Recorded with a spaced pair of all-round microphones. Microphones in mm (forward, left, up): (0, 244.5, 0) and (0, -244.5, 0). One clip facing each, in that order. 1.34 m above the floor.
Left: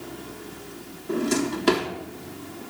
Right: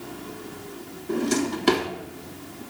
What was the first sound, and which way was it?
A drawer, 5° right (ahead or behind).